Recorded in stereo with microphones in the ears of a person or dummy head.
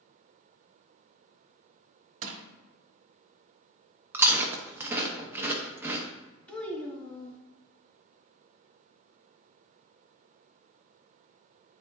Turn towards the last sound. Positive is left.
turn(degrees=10)  # may be behind; listen again after turning